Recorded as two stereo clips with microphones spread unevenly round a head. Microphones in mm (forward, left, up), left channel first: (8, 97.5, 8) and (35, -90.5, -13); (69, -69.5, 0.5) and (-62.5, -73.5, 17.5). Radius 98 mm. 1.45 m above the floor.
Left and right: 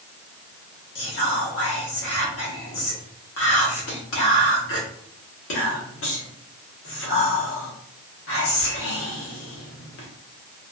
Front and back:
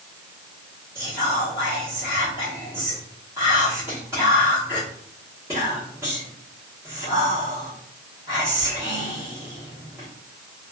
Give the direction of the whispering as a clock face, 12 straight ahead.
8 o'clock.